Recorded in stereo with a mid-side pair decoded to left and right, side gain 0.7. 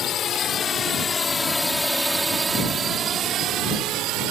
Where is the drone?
45° left; by 4.3 s 65° right.